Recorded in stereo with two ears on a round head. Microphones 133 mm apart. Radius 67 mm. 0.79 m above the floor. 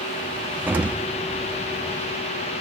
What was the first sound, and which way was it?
An explosion, 10° right (ahead or behind).